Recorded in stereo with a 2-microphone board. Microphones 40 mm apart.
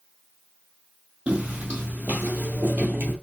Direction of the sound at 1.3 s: 35° right (ahead or behind).